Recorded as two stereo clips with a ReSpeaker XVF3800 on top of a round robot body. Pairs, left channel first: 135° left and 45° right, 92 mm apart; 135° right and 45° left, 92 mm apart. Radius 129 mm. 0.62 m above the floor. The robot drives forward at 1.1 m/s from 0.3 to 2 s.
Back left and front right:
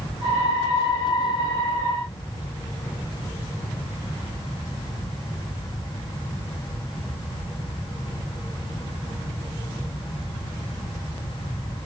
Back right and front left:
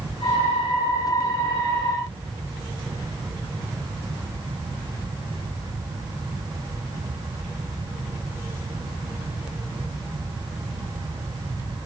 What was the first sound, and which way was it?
Only background noise.